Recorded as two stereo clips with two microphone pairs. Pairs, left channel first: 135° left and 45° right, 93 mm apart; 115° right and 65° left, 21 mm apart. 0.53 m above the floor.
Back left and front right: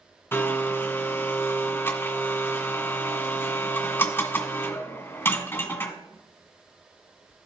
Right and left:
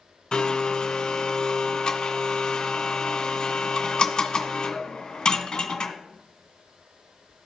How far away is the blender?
About 1.9 m.